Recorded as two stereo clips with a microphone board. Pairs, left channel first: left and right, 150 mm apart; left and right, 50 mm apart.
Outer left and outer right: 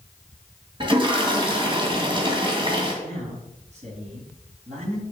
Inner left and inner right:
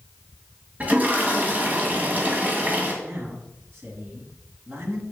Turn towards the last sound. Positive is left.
turn(degrees=-50)  # may be behind; listen again after turning